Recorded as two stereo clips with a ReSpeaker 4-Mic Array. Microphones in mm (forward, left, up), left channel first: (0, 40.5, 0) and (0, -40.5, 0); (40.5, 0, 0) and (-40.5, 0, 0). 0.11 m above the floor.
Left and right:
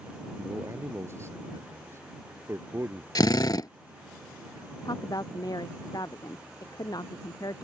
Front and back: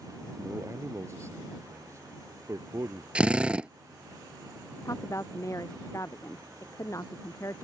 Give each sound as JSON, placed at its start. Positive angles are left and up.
{"t": 0.4, "sound": "a man speaking", "azimuth_deg": -135}
{"t": 3.1, "sound": "a drill", "azimuth_deg": 110}
{"t": 4.8, "sound": "a woman speaking", "azimuth_deg": 50}